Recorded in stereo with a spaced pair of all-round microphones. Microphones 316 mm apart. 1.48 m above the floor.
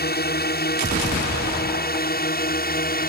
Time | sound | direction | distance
0.0 | a drone | 30° left (ahead or behind) | ?